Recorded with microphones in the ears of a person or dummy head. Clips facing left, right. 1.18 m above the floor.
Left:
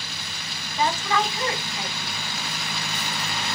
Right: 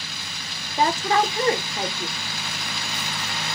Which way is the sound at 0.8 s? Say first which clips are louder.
Right 3 dB; 30° right (ahead or behind).